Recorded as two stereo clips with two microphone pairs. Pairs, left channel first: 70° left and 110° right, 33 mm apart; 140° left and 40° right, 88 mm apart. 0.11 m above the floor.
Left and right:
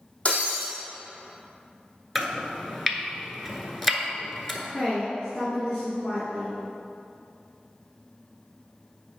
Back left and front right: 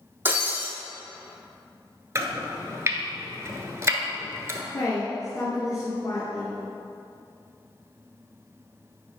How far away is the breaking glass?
About 2 m.